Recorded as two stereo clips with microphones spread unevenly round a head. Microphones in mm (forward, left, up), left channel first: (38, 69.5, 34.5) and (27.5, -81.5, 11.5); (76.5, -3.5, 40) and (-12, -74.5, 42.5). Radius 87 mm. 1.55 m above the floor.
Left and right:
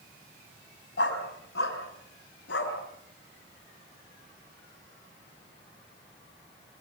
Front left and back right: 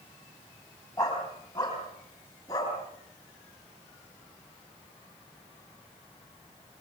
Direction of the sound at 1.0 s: 110° left.